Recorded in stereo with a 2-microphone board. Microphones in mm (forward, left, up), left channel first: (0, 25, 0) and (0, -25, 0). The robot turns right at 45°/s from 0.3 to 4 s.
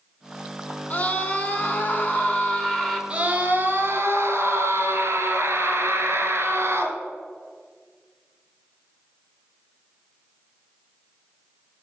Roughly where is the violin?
No violin in this recording.